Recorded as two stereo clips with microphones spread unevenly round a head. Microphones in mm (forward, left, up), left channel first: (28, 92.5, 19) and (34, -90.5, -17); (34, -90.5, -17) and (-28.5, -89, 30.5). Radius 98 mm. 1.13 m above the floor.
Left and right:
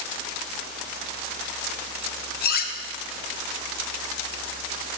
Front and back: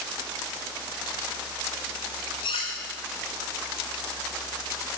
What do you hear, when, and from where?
2.4 s cutlery clinking: 65° left, 1.2 m